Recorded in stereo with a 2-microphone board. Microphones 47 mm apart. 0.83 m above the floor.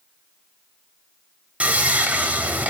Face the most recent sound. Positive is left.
turn(degrees=-25)  # may be behind; listen again after turning